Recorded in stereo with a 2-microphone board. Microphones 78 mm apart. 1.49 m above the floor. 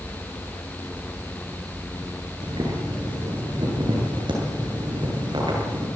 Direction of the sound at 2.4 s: 80° right.